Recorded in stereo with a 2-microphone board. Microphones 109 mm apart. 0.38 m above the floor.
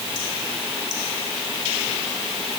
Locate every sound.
Only background noise.